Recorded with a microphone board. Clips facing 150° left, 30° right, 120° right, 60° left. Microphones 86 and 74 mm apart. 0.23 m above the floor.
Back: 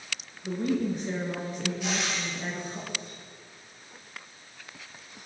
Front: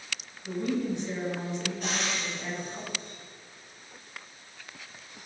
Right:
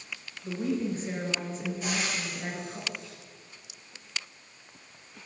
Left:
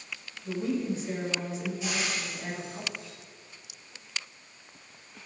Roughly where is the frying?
Right.